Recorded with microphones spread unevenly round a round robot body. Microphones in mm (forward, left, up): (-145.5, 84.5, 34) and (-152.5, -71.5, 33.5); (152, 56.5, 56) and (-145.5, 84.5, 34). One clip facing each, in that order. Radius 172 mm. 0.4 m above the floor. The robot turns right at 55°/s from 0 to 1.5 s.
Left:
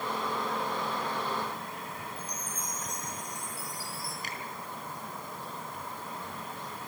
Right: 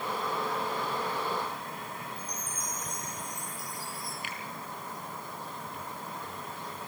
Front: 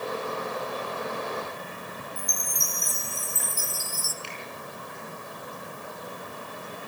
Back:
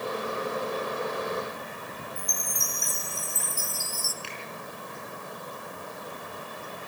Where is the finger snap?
140° left, 8 m.